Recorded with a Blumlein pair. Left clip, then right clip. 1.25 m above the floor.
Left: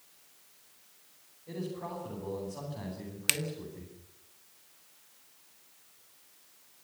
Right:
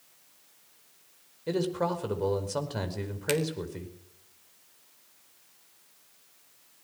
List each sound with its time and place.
1.5 s a man speaking: 40° right, 5 m
3.3 s a finger snap: 65° left, 1.7 m